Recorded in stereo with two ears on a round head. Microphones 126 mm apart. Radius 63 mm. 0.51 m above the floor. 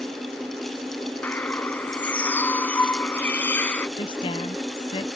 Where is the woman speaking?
40° left (ahead or behind).